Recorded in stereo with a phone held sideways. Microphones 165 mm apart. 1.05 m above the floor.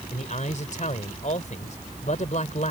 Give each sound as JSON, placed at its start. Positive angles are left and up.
{"t": 0.1, "sound": "a man speaking", "side_deg": 50}